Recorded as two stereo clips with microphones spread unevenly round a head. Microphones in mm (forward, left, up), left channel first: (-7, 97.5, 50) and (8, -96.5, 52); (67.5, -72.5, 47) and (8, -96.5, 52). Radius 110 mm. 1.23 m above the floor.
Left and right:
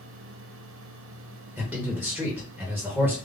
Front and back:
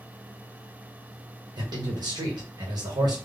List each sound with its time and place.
1.6 s a man speaking: 175° right, 1.4 m